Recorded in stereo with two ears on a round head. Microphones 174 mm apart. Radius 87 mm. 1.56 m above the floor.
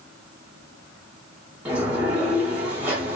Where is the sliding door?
5° right (ahead or behind), 1.3 m.